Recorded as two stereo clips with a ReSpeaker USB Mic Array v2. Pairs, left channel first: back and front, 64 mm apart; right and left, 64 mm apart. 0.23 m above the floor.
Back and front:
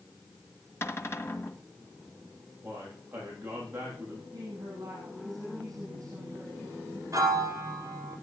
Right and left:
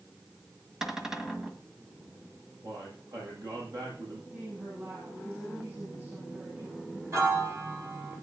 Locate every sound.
0.8 s a cupboard door: 170° left, 1.7 m
2.6 s a man speaking: 65° left, 8 m
4.3 s a woman speaking: 30° left, 8 m
7.1 s a piano: 40° left, 3 m